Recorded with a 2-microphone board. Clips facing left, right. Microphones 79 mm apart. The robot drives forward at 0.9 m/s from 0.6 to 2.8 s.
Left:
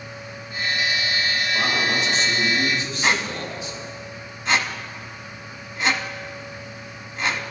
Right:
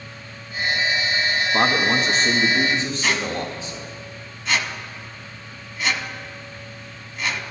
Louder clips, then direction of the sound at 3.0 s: Even; 35° left (ahead or behind).